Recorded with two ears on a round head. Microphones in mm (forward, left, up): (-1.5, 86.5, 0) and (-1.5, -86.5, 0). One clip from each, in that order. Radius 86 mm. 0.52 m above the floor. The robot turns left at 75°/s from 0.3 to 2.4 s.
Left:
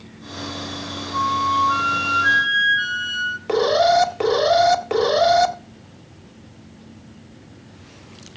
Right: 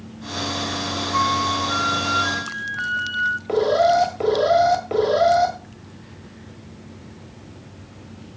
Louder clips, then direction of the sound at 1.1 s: Left 2 dB; 170° right.